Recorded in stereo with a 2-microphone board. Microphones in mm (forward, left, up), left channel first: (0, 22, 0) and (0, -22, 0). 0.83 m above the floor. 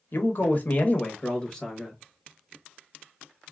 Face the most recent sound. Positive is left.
turn(degrees=5)  # may be behind; listen again after turning